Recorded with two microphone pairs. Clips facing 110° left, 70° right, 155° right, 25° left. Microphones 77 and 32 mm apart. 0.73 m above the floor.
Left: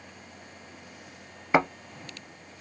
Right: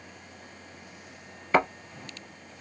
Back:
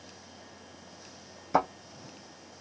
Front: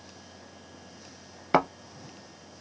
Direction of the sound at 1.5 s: 35° left.